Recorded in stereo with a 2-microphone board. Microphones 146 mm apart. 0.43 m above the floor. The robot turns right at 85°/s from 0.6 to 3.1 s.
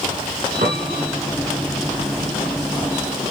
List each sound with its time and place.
0.6 s a piano: 60° right, 3.5 m; by 1.1 s 25° right, 3.5 m